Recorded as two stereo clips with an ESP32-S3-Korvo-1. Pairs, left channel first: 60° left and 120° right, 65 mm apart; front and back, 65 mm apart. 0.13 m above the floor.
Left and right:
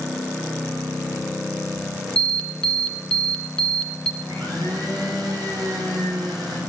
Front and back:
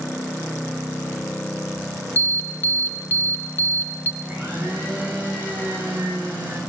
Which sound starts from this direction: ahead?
An alarm, at 2.2 s.